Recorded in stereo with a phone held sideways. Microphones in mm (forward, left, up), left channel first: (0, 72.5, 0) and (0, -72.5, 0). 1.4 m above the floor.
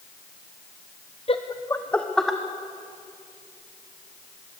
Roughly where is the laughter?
Left.